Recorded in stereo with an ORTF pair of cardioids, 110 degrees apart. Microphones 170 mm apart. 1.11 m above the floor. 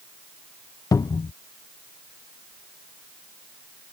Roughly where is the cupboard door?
Ahead.